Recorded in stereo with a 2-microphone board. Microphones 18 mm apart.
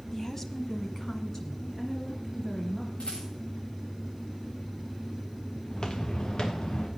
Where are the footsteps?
60° left (ahead or behind), 2 m.